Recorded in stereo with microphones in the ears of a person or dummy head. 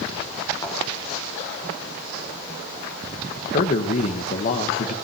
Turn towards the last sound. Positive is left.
turn(degrees=40)  # may be behind; listen again after turning